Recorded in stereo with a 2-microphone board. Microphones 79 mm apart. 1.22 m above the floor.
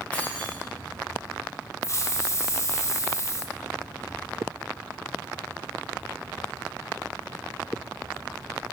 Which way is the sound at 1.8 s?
35° left (ahead or behind).